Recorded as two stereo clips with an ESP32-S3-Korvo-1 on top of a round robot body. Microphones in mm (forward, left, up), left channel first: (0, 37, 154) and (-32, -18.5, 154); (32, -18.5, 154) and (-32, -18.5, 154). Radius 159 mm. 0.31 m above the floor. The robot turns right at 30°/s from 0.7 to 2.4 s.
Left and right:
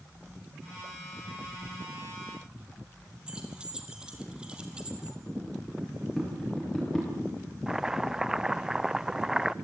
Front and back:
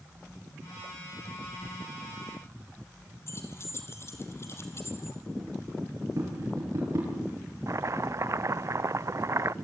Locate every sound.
3.3 s keys jangling: 45° right, 3 m
6.2 s tapping: 145° left, 7.5 m
7.7 s chopping: 160° left, 0.5 m